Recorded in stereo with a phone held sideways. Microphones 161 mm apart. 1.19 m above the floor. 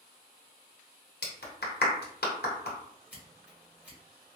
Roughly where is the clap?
Left.